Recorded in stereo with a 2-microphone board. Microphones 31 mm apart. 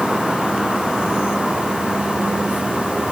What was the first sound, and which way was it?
Only background noise.